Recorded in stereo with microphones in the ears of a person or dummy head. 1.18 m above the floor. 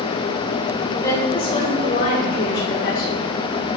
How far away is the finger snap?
No finger snap in this recording.